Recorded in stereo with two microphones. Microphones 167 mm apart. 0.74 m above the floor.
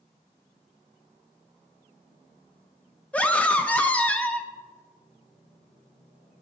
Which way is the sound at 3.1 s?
10° left (ahead or behind).